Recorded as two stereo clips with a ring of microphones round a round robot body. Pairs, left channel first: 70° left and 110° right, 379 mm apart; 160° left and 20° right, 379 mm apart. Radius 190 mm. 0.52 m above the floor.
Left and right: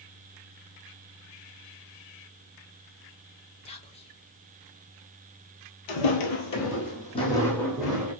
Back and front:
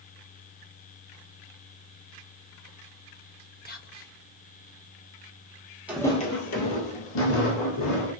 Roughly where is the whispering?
Behind left.